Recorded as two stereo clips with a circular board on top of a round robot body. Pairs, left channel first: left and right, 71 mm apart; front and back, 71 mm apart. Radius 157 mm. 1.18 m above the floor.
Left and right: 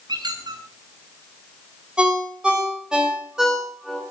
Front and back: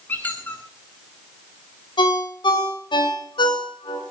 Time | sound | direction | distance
0.1 | a squeak | 70° right | 0.7 m
2.0 | a ringtone | 10° right | 3 m